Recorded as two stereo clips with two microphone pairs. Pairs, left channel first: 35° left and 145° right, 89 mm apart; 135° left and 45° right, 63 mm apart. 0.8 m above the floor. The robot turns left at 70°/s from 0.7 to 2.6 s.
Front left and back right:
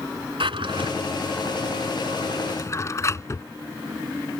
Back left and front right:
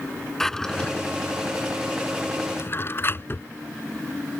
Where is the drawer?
140° right; by 3.5 s 90° left.